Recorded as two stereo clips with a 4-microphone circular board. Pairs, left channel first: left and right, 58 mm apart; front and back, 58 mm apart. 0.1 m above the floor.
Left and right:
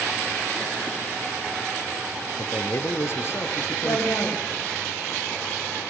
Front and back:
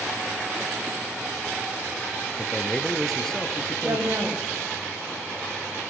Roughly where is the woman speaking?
Behind left.